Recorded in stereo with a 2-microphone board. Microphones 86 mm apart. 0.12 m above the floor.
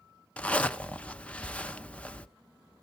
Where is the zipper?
15° left (ahead or behind), 0.5 m.